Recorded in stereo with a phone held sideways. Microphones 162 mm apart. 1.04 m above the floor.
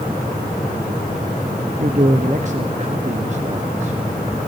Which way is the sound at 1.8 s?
50° right (ahead or behind).